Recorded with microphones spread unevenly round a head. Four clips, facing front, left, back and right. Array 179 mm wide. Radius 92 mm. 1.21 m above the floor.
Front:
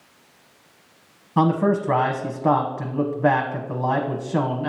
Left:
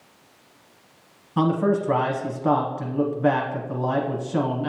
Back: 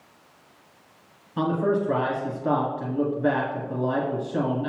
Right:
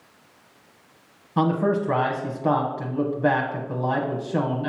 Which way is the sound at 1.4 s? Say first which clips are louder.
Left 1 dB, front 4 dB; 15° right.